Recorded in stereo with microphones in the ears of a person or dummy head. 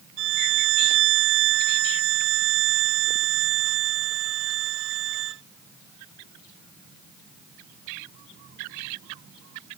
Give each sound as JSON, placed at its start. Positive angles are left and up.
{"t": 0.2, "sound": "a violin", "side_deg": -70}